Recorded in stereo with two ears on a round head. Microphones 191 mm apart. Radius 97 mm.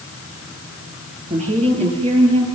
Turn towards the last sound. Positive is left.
turn(degrees=-25)  # may be behind; listen again after turning